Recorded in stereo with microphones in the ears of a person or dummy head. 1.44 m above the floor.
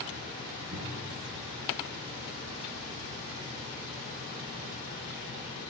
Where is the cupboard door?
65° right (ahead or behind), 4.5 m.